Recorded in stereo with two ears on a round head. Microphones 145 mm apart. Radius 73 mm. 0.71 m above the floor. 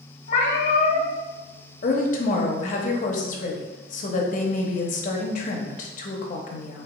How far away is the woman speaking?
About 0.7 m.